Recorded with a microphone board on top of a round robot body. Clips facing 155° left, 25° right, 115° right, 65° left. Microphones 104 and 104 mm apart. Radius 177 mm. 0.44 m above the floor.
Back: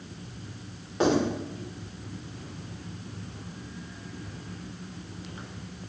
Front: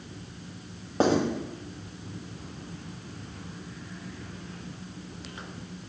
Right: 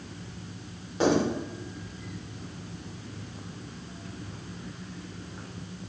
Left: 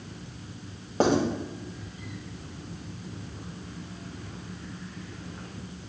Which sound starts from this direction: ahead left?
Writing, at 1.0 s.